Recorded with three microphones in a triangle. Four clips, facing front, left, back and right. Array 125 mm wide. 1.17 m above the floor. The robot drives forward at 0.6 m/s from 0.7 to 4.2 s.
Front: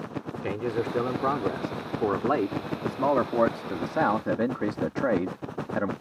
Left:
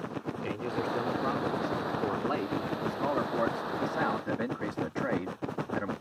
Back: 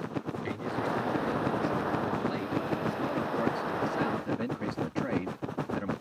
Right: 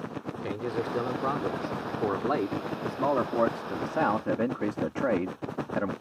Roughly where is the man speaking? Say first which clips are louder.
Right 2 dB, front 6 dB; ahead.